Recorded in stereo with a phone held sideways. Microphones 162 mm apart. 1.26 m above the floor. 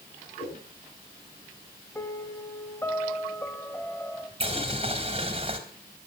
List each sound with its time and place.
0.4 s a whoosh: 40° left (ahead or behind), 8 m
1.9 s a piano: 15° left (ahead or behind), 1.4 m
4.4 s boiling: 35° right (ahead or behind), 3 m